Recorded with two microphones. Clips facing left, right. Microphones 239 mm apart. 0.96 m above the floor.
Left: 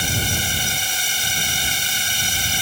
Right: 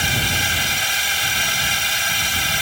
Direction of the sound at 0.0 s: 75° right (ahead or behind).